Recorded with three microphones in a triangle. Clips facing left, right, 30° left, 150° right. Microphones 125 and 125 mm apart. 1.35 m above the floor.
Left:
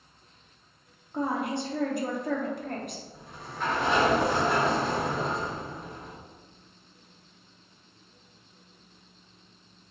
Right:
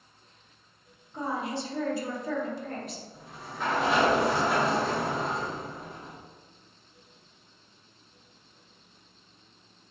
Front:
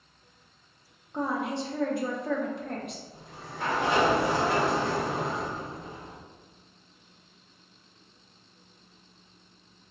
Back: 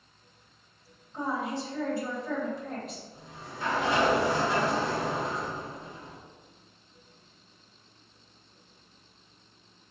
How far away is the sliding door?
About 1.0 m.